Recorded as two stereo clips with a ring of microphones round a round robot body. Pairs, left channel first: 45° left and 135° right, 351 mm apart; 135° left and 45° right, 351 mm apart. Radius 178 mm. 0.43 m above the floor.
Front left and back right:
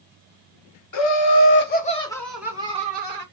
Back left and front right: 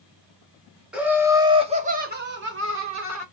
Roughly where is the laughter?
Ahead left.